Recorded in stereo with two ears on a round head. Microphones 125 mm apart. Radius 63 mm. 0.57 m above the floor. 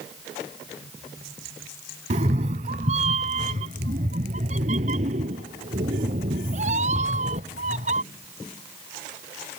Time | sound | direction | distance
2.1 | a cat meowing | 50° right (ahead or behind) | ?